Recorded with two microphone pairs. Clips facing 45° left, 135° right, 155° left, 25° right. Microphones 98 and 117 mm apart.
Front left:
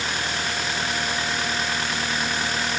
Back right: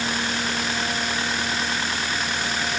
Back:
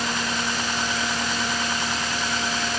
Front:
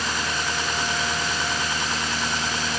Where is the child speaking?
I don't hear a child speaking.